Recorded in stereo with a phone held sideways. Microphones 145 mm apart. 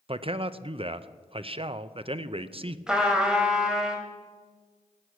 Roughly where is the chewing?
I don't hear chewing.